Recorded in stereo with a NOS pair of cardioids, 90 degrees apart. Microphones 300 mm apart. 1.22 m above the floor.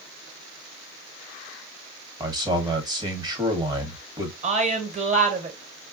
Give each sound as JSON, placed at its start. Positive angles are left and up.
{"t": 2.2, "sound": "a man speaking", "azimuth_deg": -15, "distance_m": 1.2}
{"t": 4.4, "sound": "a woman speaking", "azimuth_deg": -25, "distance_m": 1.4}